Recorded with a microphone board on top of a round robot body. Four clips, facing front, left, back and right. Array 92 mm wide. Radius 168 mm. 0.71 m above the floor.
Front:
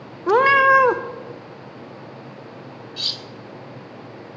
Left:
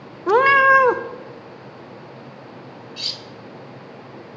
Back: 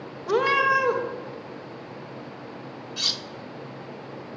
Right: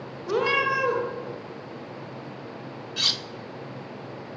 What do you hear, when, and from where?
0.3 s a cat meowing: 50° left, 0.5 m
3.0 s cutlery clinking: 105° right, 0.5 m